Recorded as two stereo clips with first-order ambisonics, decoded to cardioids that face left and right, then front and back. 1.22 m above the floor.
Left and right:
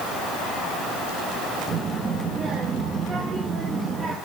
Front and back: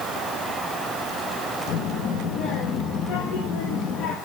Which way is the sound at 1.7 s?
25° right.